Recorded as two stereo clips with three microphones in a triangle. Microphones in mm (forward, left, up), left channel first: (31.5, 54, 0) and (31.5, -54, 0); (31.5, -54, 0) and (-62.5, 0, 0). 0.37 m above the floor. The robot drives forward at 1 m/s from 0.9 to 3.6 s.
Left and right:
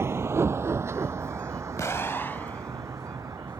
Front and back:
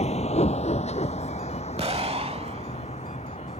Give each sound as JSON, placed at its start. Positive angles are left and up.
{"t": 0.0, "sound": "a vehicle", "azimuth_deg": -25}
{"t": 1.8, "sound": "an explosion", "azimuth_deg": 150}